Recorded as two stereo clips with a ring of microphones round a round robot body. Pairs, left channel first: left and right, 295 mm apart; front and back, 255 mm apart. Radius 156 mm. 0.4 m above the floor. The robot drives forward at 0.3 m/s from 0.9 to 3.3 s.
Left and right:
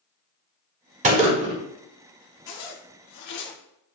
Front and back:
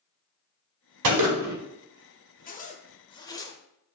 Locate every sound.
1.0 s a gunshot: 155° right, 0.7 m; by 1.6 s 160° right, 0.8 m
2.5 s a zipper: 55° left, 0.8 m; by 3.5 s 75° left, 0.7 m